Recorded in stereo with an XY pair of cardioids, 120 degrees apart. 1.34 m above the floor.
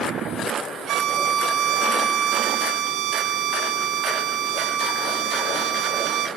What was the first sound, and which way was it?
A violin, 65° right.